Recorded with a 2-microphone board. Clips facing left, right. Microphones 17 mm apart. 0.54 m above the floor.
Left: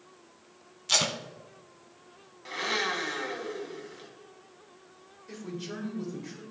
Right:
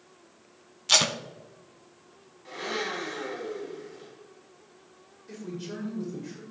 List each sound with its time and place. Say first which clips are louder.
0.9 s tape being pulled: right 4 dB; 25° right (ahead or behind), 0.6 m
2.5 s a blender: left 3 dB; 30° left (ahead or behind), 2.0 m
5.3 s a man speaking: right 1 dB; 5° right (ahead or behind), 2 m